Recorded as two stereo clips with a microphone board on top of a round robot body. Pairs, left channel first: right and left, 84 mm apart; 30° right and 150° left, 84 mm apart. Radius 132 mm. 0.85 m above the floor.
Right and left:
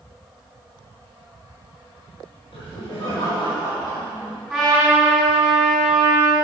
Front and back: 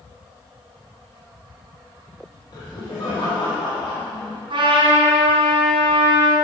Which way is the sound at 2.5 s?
70° right.